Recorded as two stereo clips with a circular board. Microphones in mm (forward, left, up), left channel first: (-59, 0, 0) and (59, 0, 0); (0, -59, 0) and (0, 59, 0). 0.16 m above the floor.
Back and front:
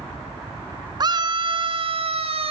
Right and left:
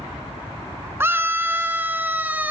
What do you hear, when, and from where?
1.0 s a scream: 30° left, 1.5 m; by 2.5 s 15° left, 2.5 m